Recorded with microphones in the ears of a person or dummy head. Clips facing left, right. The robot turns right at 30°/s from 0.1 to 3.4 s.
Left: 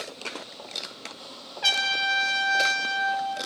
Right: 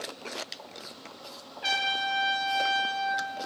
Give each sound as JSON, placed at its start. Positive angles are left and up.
{"t": 1.6, "sound": "a trumpet", "azimuth_deg": 60, "distance_m": 0.8}